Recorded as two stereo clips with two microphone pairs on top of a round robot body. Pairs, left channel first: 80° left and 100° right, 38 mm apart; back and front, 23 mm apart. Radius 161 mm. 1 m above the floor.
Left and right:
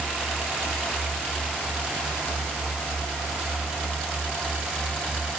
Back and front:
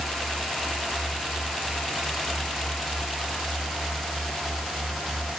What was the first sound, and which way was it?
Only background noise.